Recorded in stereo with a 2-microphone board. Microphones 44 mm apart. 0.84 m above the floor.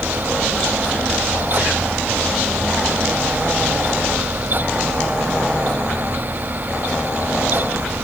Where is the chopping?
I don't hear chopping.